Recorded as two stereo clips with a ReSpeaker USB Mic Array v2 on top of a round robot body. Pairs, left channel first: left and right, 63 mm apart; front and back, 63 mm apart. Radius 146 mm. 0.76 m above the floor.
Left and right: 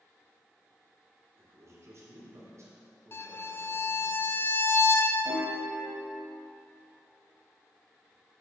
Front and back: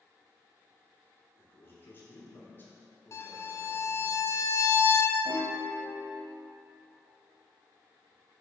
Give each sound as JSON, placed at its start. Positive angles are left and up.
{"t": 1.4, "sound": "a man speaking", "azimuth_deg": -55, "distance_m": 2.5}
{"t": 3.1, "sound": "a violin", "azimuth_deg": 40, "distance_m": 0.7}
{"t": 5.2, "sound": "a piano", "azimuth_deg": -140, "distance_m": 0.6}